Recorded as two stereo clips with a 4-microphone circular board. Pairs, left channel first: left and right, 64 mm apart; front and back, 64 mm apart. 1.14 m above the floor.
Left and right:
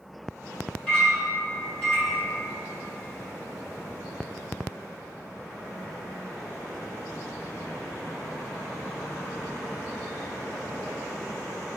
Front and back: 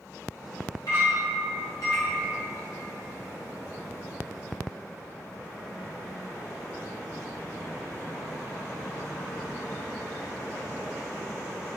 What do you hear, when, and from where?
0.9 s a clink: 20° left, 1.7 m